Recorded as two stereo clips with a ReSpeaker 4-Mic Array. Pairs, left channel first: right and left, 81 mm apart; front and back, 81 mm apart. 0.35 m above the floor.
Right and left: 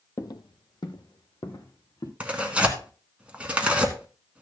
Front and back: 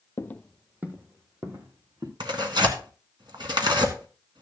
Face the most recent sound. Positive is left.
turn(degrees=165)